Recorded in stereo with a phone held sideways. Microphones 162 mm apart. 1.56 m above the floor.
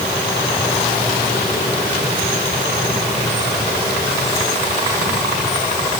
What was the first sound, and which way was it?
Only background noise.